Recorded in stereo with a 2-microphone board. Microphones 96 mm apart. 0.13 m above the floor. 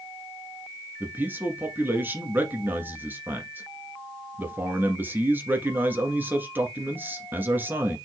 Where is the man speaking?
20° right (ahead or behind), 1.6 m.